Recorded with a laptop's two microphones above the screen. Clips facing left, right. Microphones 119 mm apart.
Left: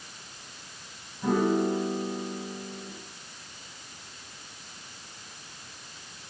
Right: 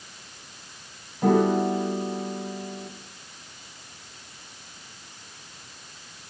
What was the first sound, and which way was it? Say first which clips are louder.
A piano: right 4 dB; 70° right (ahead or behind).